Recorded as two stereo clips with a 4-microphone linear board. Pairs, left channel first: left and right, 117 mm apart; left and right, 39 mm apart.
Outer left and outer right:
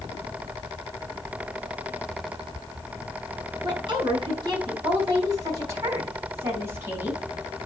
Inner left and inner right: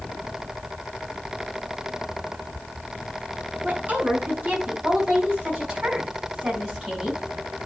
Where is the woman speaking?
40° right (ahead or behind), 5 m; by 7.2 s 15° right (ahead or behind), 4 m.